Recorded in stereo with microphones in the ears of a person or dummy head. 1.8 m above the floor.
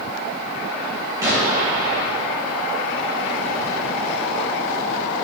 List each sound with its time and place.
1.2 s an explosion: 25° right (ahead or behind), 3 m